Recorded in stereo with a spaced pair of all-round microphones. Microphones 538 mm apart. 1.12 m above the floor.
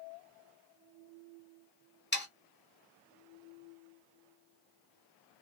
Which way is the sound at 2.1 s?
20° left (ahead or behind).